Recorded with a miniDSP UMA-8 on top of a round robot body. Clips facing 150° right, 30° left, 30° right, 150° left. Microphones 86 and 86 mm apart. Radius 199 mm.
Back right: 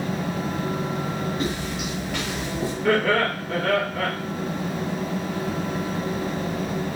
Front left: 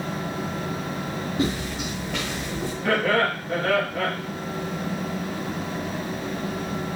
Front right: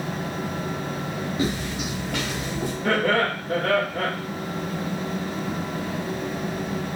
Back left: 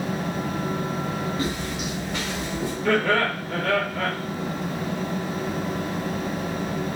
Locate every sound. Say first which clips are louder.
1.4 s footsteps: front left 1 dB, front right 1 dB; 35° left, 0.6 m; by 2.7 s 75° right, 1.6 m
2.8 s laughter: back right 1 dB, even; 50° right, 1.6 m